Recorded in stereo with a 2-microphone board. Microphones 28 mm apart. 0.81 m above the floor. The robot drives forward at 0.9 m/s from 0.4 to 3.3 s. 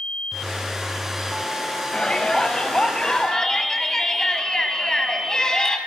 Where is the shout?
30° left (ahead or behind), 5 m; by 5.8 s 25° left (ahead or behind), 6 m.